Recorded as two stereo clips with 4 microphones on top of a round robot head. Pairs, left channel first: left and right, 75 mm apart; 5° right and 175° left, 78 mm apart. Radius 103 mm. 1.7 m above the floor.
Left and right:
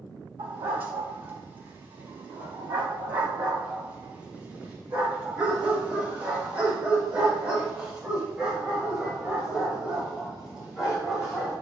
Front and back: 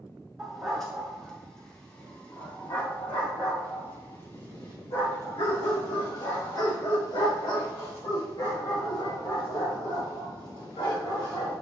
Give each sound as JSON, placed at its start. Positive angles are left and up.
{"t": 0.4, "sound": "a dog barking", "azimuth_deg": -95, "distance_m": 2.0}